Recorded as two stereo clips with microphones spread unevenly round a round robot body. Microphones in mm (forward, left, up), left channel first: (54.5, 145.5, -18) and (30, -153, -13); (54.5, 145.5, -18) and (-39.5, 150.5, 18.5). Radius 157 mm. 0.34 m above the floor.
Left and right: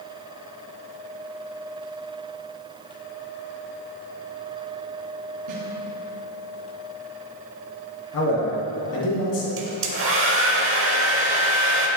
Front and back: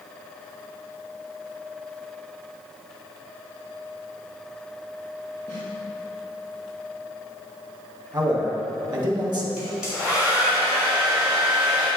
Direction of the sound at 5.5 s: 115° right.